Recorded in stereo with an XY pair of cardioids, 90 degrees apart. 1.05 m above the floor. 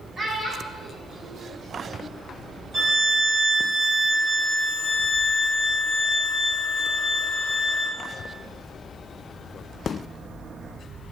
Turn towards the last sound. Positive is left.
turn(degrees=-55)